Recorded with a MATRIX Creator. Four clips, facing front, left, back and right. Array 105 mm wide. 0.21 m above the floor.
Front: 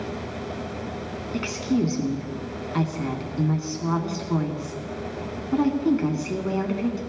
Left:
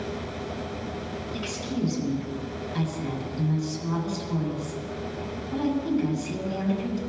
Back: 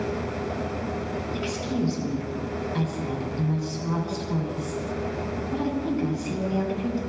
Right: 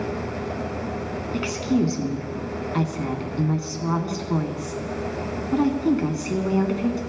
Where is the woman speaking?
55° right, 1.7 m.